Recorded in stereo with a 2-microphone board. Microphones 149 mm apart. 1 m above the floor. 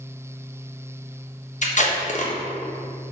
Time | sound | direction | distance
1.6 | tape being pulled | 55° left (ahead or behind) | 1.1 m